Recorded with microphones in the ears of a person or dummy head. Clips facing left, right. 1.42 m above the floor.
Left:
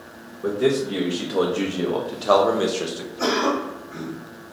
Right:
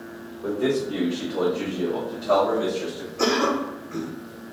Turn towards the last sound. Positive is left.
turn(degrees=-70)  # may be behind; listen again after turning